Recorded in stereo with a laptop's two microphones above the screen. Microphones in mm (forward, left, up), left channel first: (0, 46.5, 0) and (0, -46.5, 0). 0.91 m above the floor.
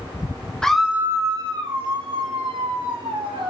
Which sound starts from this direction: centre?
A scream, at 0.6 s.